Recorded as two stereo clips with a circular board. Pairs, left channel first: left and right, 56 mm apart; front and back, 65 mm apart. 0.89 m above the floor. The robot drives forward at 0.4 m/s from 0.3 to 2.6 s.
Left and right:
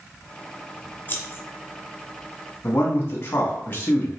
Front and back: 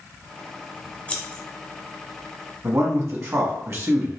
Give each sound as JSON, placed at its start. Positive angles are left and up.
{"t": 1.1, "sound": "scissors", "azimuth_deg": 60, "distance_m": 0.8}
{"t": 2.6, "sound": "a man speaking", "azimuth_deg": 140, "distance_m": 1.2}